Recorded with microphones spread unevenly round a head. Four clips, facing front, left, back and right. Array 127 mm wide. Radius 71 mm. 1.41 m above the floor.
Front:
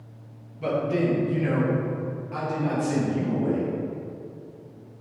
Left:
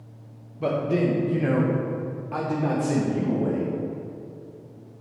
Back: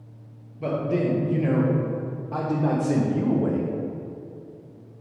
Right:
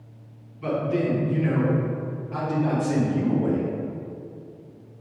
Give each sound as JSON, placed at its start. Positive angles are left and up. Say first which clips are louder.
{"t": 0.6, "sound": "a man speaking", "louder": "left 1 dB, even", "azimuth_deg": 115, "distance_m": 1.8}